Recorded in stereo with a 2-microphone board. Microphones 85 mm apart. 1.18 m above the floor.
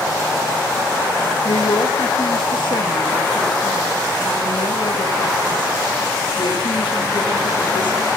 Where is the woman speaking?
80° left, 1.3 m.